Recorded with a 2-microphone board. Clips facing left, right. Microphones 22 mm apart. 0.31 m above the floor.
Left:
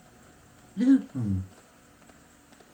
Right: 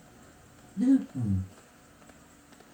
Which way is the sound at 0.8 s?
75° left (ahead or behind).